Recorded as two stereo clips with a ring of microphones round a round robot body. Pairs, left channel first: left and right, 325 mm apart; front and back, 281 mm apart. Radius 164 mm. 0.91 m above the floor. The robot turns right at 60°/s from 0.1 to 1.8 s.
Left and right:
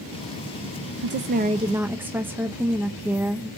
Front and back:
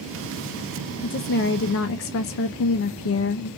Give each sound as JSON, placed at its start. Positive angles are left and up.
{"t": 1.0, "sound": "a woman speaking", "azimuth_deg": -55, "distance_m": 0.5}